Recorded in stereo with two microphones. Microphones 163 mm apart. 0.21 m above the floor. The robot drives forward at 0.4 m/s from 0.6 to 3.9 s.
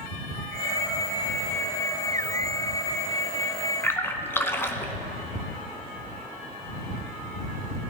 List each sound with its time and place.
3.8 s a splash: 15° left (ahead or behind), 0.9 m